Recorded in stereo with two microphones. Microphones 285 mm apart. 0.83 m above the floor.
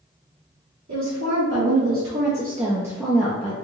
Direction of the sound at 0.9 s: 70° right (ahead or behind).